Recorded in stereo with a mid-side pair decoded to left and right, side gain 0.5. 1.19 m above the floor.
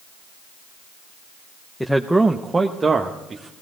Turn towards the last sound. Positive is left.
turn(degrees=-40)